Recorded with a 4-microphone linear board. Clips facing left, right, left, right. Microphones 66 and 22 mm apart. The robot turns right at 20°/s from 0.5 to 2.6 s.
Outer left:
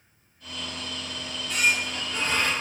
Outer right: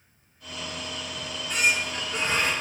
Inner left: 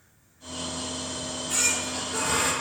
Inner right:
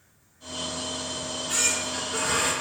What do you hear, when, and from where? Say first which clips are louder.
1.2 s a squeak: even, even; 50° right (ahead or behind), 2.5 m; by 2.5 s 25° right (ahead or behind), 2.5 m